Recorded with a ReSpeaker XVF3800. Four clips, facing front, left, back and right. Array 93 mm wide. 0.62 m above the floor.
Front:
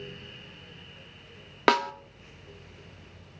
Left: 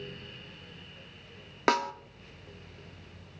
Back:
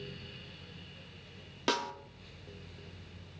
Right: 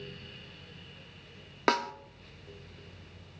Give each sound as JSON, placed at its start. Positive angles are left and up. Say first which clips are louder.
{"t": 1.7, "sound": "a snare drum", "louder": "left 1 dB, front 10 dB", "azimuth_deg": 5, "distance_m": 0.6}